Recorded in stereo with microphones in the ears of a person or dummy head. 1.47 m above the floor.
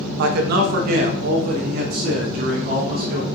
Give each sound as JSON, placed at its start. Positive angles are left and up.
{"t": 0.2, "sound": "a man speaking", "side_deg": -55, "distance_m": 1.0}